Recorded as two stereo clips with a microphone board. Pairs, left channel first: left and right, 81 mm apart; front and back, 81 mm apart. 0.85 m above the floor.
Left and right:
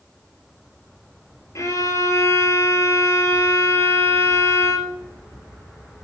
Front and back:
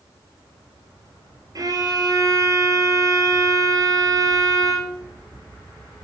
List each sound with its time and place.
1.6 s a violin: 140° left, 3 m